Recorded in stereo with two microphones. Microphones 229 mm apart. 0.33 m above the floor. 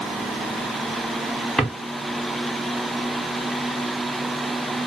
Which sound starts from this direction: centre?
A drawer, at 1.6 s.